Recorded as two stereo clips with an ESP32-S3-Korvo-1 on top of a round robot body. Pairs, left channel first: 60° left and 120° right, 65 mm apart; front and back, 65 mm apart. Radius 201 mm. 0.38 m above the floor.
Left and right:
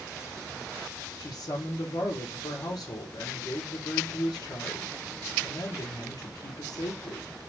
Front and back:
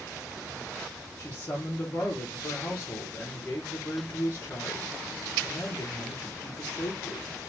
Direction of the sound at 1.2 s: 60° left.